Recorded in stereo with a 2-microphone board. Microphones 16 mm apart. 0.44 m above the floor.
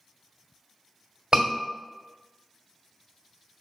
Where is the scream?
45° right (ahead or behind), 1.9 m.